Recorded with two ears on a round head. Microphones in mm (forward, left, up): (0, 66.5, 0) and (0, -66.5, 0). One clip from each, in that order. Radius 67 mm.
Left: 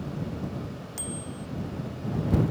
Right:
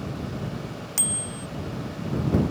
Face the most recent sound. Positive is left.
turn(degrees=-55)  # may be behind; listen again after turning